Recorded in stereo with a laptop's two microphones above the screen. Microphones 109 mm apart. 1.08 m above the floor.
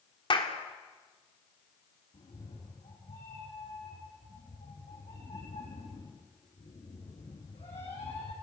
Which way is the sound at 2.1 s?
70° left (ahead or behind).